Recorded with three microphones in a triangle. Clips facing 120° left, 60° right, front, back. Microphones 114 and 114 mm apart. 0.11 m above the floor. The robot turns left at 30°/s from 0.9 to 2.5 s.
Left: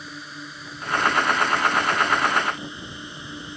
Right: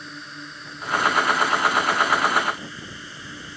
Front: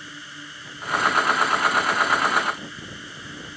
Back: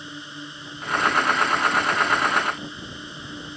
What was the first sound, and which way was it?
A drone, 155° right.